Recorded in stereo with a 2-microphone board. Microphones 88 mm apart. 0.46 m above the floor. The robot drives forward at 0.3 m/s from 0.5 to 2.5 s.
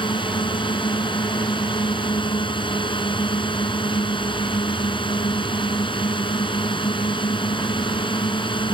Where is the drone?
70° left (ahead or behind).